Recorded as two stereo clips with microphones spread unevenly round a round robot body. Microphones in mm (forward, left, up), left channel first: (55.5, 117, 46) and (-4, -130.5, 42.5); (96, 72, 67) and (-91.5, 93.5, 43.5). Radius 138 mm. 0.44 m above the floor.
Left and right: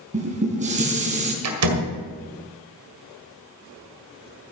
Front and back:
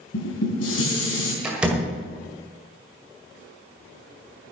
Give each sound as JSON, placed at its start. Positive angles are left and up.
{"t": 0.1, "sound": "dishes clattering", "azimuth_deg": -40, "distance_m": 3.5}
{"t": 1.4, "sound": "a door slam", "azimuth_deg": -105, "distance_m": 1.8}